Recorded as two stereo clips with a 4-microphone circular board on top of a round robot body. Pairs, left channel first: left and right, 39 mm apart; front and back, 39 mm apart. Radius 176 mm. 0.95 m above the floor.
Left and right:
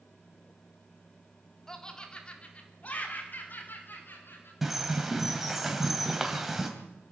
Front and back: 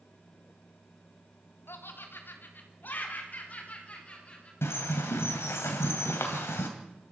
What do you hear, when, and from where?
1.7 s laughter: 15° left, 3.5 m; by 4.5 s 60° left, 5.5 m
4.6 s a bird: 5° right, 2.5 m